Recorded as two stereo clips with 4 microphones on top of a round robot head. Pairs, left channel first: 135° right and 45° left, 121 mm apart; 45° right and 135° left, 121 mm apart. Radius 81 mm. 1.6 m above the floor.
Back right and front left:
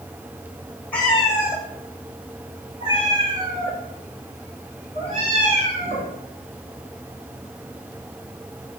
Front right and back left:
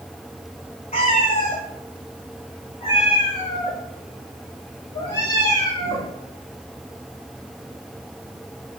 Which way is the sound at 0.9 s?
60° right.